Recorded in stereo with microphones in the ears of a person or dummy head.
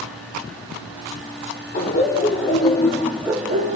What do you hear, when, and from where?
1.7 s laughter: 60° left (ahead or behind), 1.6 m; by 3.8 s 40° right (ahead or behind), 0.8 m